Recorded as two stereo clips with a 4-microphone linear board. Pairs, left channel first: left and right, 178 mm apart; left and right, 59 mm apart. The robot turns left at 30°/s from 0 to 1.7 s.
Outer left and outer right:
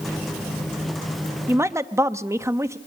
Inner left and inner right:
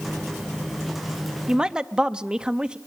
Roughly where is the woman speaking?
Centre.